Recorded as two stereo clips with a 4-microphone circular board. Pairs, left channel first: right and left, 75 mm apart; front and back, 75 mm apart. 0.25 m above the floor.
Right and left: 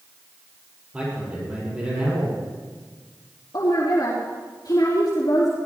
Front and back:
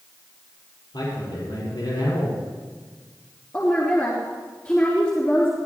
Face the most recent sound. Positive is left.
turn(degrees=-60)